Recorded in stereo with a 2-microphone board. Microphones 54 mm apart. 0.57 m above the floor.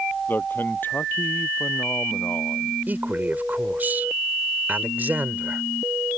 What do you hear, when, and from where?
0.3 s a man speaking: 35° left (ahead or behind)
2.9 s a man speaking: 30° right (ahead or behind)